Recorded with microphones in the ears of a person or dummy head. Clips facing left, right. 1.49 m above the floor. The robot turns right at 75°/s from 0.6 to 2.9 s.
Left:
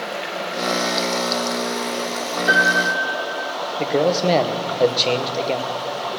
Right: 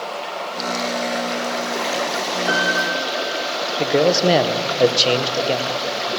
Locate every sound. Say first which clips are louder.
0.0 s running water: even; 155° left, 0.8 m; by 6.2 s 35° right, 0.8 m
2.5 s a piano: left 2 dB; 15° left, 1.7 m; by 3.5 s 45° left, 1.7 m
3.8 s a man speaking: right 2 dB; 10° right (ahead or behind), 0.7 m